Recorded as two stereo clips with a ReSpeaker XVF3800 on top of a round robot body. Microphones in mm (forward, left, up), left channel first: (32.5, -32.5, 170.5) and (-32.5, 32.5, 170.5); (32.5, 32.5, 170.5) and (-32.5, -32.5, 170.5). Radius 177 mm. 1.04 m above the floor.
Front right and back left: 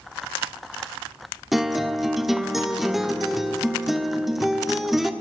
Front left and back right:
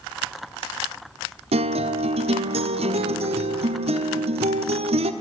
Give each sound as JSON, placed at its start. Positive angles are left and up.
{"t": 1.5, "sound": "a guitar", "azimuth_deg": -135, "distance_m": 1.3}